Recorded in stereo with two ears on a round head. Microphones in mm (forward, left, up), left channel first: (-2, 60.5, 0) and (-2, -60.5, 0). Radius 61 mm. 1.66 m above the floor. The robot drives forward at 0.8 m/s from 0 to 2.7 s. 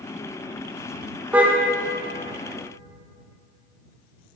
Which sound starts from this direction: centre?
A car horn, at 1.3 s.